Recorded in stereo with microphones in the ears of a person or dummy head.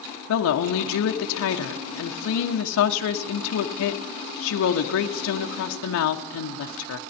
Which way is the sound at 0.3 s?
70° left (ahead or behind).